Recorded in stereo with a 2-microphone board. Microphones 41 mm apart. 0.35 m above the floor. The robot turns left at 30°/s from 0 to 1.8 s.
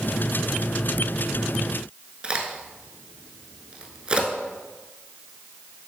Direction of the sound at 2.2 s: 20° right (ahead or behind).